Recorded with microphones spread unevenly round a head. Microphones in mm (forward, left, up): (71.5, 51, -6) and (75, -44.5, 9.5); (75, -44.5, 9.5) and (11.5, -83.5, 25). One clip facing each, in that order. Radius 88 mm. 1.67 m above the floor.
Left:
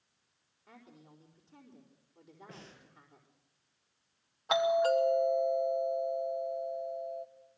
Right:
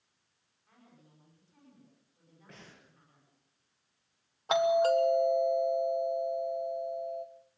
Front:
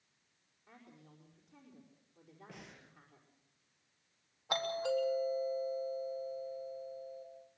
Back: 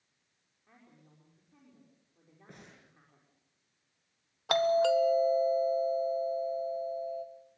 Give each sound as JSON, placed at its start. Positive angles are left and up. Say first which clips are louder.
{"t": 0.7, "sound": "a woman speaking", "louder": "left 6 dB, front 2 dB", "azimuth_deg": 125, "distance_m": 4.5}
{"t": 2.5, "sound": "breathing", "louder": "right 1 dB, back 1 dB", "azimuth_deg": 175, "distance_m": 5.5}
{"t": 4.5, "sound": "a doorbell", "louder": "right 2 dB, back 10 dB", "azimuth_deg": -155, "distance_m": 1.2}